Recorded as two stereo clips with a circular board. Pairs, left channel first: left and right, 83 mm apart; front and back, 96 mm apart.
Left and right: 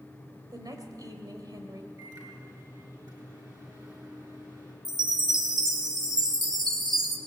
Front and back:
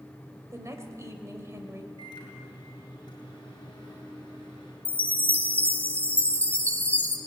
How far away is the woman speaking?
About 2.5 m.